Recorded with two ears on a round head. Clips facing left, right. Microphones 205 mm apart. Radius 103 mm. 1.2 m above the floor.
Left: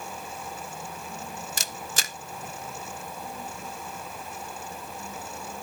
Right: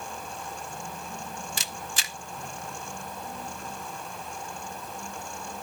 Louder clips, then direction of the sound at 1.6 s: Left 1 dB; 35° left (ahead or behind).